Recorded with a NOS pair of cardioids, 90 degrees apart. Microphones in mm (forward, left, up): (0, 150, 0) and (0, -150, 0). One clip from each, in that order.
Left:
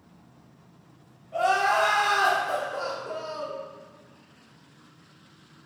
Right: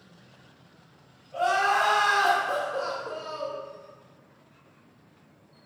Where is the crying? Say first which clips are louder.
Left 1 dB; 30° left, 0.9 m.